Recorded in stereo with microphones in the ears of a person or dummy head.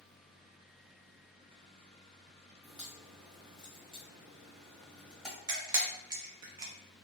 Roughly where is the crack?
Centre.